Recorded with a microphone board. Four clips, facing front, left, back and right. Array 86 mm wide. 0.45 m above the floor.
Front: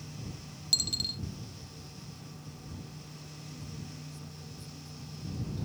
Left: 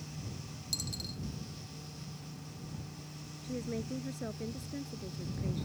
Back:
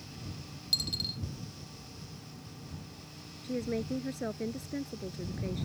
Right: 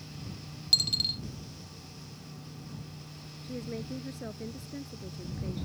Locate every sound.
0.7 s a dropped coin: 75° right
3.4 s a woman speaking: straight behind